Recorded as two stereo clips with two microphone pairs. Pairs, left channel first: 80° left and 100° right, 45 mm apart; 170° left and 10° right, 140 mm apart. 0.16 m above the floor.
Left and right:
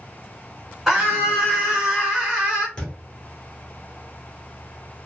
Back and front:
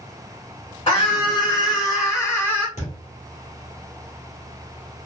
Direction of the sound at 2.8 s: 145° left.